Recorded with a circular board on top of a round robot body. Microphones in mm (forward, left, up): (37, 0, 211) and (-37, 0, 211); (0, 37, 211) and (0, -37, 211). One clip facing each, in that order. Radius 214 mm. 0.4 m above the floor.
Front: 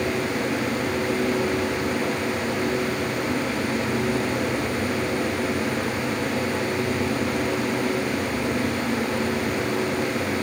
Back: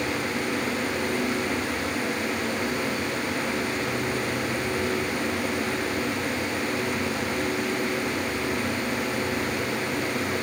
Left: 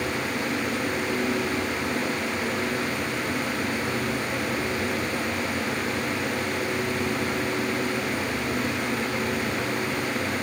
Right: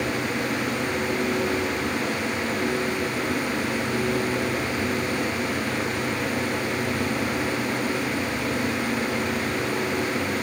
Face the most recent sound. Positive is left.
No sound to turn to.